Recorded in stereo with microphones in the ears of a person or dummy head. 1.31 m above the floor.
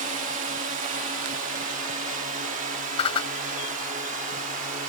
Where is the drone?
40° right (ahead or behind); by 4.9 s 45° right (ahead or behind).